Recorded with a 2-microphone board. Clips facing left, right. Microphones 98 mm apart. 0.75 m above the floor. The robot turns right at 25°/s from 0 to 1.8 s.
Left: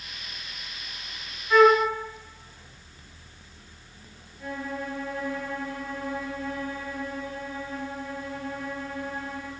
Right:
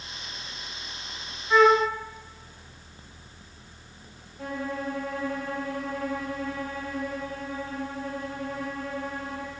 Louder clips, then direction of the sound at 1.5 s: Left 1 dB; 15° right (ahead or behind).